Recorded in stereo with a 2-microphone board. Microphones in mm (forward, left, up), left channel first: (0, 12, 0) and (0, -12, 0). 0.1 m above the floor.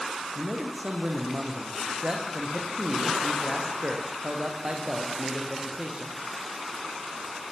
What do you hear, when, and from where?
0.3 s a man speaking: 45° right (ahead or behind), 5.5 m